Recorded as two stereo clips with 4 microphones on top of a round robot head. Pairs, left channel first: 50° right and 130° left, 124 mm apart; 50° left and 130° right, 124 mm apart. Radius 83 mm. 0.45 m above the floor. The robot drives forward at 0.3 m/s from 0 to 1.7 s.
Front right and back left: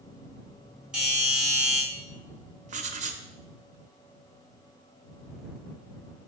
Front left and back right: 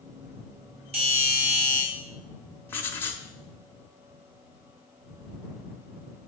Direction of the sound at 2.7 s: 120° left.